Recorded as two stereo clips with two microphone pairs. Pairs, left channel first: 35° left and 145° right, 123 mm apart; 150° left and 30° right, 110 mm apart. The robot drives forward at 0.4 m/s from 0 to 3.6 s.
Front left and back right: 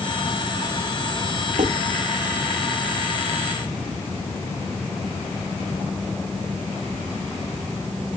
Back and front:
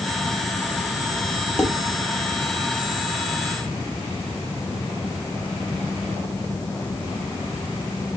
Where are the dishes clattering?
130° right, 1.5 m.